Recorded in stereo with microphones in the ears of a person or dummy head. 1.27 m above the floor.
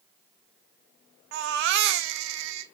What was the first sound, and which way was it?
A baby crying, 65° right (ahead or behind).